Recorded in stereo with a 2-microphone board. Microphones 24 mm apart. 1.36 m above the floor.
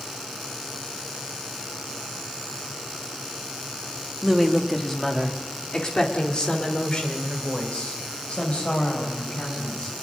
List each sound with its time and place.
4.2 s a woman speaking: 5° right (ahead or behind), 2.5 m; by 9.9 s 60° left (ahead or behind), 9 m